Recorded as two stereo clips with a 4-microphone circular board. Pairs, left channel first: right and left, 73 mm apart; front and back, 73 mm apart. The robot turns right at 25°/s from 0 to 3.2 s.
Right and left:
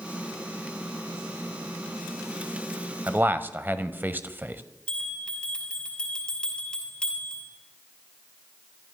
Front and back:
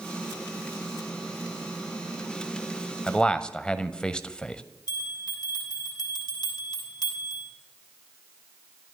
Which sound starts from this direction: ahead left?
A man speaking, at 3.1 s.